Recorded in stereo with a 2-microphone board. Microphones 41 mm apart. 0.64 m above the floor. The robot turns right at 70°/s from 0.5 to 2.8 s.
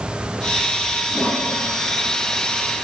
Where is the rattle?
No rattle in this recording.